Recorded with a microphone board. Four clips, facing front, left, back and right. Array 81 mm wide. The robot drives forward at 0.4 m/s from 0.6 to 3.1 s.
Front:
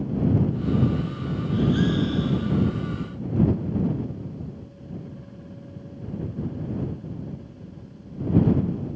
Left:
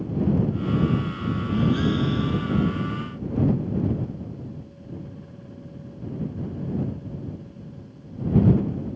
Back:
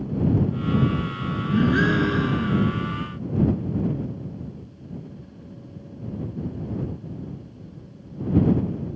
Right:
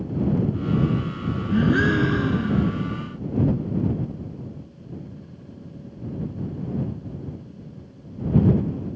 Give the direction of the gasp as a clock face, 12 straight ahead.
4 o'clock.